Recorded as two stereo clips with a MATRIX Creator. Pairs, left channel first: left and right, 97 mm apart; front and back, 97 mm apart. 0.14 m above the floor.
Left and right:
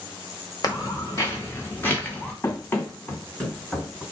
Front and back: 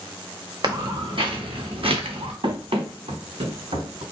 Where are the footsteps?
140° left, 1.8 m; by 2.3 s 165° left, 1.9 m.